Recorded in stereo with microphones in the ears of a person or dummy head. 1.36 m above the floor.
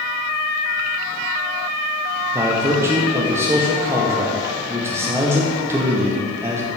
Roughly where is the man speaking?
Centre.